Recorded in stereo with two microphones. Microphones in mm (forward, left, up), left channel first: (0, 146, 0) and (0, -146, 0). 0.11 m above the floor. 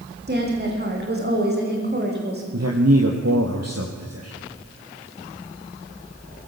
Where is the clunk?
No clunk in this recording.